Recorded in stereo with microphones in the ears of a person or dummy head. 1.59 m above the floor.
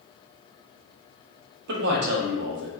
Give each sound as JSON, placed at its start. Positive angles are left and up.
{"t": 1.7, "sound": "a man speaking", "side_deg": -65, "distance_m": 0.9}